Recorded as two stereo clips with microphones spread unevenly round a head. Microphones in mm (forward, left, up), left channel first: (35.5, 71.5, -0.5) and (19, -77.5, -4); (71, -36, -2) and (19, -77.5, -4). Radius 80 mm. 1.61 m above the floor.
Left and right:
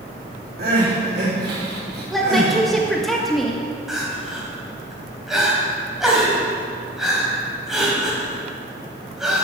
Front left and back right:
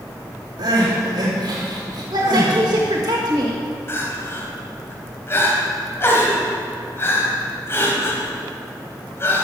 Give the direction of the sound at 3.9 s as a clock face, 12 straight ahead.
12 o'clock.